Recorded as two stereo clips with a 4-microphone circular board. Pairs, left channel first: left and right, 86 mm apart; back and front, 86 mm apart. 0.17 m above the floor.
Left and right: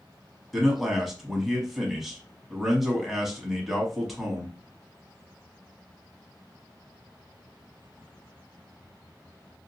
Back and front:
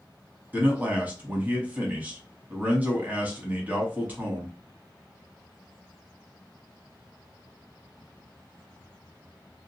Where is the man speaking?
5° right, 1.0 m.